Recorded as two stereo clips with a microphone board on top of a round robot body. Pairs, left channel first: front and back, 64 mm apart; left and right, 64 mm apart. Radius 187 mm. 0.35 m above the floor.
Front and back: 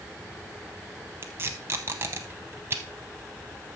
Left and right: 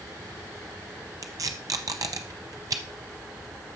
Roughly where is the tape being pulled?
Behind right.